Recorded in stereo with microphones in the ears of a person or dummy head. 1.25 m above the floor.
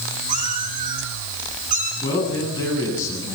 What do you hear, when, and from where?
0.3 s a cat meowing: 45° right (ahead or behind), 4.5 m
2.0 s a man speaking: 25° left (ahead or behind), 9.5 m